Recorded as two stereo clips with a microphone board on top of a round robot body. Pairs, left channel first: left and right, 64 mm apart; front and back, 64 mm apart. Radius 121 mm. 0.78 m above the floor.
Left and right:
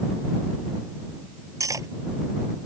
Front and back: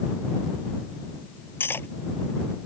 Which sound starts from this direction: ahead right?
Cutlery clinking, at 1.6 s.